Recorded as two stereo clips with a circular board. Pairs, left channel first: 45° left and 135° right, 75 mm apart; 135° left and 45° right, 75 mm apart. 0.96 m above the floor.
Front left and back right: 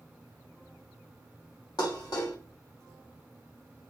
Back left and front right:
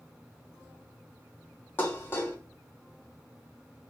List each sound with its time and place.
1.8 s dishes clattering: 75° left, 1.1 m